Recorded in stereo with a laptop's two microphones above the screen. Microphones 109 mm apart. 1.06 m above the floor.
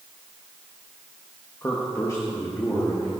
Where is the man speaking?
25° left (ahead or behind), 1.2 m; by 3.1 s 35° left (ahead or behind), 2 m.